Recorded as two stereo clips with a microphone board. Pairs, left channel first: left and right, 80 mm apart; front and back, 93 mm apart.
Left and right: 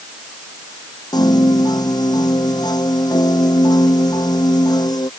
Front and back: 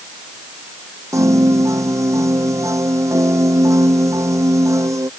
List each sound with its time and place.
1.1 s a piano: 125° left